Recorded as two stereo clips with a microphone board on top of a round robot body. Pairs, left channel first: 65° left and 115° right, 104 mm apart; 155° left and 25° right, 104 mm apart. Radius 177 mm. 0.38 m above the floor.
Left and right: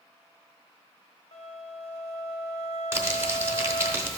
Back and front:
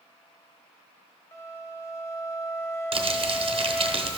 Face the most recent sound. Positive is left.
turn(degrees=-45)